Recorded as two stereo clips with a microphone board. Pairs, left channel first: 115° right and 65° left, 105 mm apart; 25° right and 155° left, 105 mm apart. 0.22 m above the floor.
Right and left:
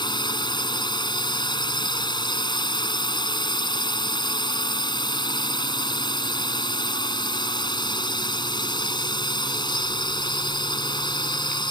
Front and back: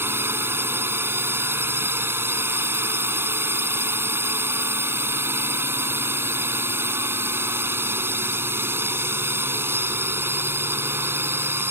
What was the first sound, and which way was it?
A drone, 140° right.